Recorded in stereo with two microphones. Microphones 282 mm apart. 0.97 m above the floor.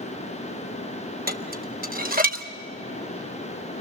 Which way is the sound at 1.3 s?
30° right (ahead or behind).